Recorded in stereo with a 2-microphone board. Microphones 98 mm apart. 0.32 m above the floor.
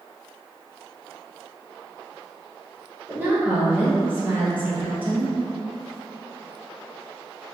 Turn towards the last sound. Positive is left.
turn(degrees=-20)  # may be behind; listen again after turning